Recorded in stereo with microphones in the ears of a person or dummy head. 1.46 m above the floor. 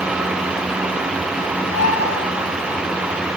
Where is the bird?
80° left, 5.5 m.